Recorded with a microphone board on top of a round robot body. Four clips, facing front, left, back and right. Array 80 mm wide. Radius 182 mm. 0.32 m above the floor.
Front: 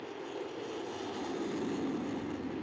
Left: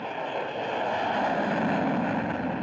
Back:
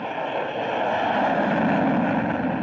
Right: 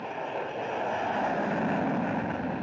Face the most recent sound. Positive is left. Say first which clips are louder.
# left 2 dB, back 14 dB
turn(degrees=170)